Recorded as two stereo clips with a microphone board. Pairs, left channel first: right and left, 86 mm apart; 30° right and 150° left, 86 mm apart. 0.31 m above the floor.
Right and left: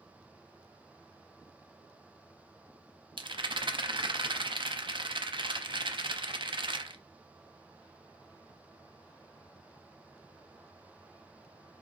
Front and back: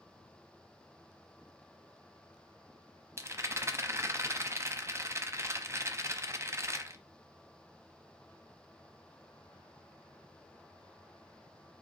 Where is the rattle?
95° left, 0.7 m.